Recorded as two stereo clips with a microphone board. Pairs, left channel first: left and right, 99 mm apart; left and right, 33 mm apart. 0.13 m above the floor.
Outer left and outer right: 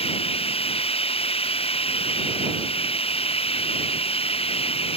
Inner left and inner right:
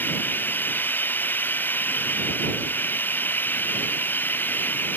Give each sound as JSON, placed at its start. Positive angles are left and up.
{"t": 0.0, "sound": "running water", "side_deg": 75}